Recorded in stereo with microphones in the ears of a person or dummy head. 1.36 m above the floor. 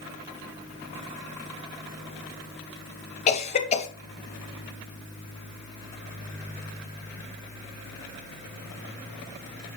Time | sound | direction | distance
3.3 | a cough | 35° left (ahead or behind) | 1.3 m